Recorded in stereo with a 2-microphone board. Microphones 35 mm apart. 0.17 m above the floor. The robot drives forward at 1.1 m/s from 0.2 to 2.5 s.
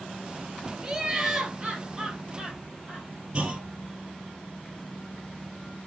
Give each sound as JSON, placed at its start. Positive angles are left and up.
{"t": 0.8, "sound": "laughter", "side_deg": -20, "distance_m": 2.5}
{"t": 3.3, "sound": "a clunk", "side_deg": -30, "distance_m": 2.5}